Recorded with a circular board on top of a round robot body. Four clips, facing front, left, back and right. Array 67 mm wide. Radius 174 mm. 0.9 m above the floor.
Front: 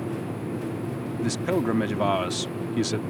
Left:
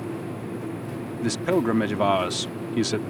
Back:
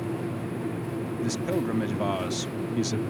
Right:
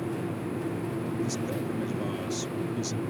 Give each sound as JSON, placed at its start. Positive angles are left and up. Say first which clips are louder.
{"t": 1.2, "sound": "a man speaking", "louder": "left 8 dB, front 4 dB", "azimuth_deg": 70}